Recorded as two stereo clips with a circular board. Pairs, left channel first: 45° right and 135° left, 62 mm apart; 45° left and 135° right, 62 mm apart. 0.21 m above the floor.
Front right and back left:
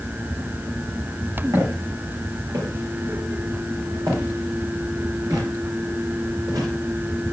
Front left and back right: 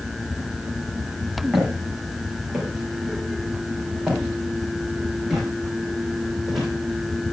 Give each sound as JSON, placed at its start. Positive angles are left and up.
{"t": 1.5, "sound": "footsteps", "azimuth_deg": 145, "distance_m": 7.5}